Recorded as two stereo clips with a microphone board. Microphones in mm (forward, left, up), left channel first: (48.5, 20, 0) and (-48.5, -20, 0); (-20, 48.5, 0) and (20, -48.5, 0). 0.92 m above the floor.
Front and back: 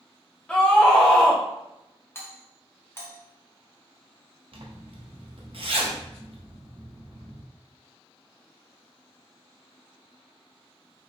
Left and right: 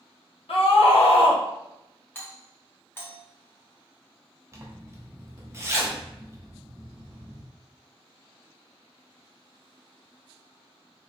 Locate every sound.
0.5 s a scream: 105° left, 0.8 m
2.1 s a doorbell: 65° left, 0.7 m
4.5 s a zipper: 130° right, 0.6 m